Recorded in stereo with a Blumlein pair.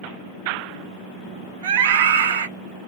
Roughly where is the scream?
Ahead right.